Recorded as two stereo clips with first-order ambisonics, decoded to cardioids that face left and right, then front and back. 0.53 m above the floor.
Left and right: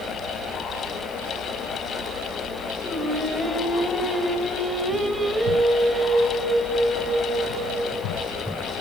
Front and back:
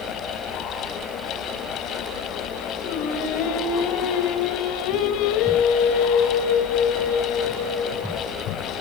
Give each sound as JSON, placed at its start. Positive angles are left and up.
{"t": 2.8, "sound": "singing", "azimuth_deg": 5, "distance_m": 3.0}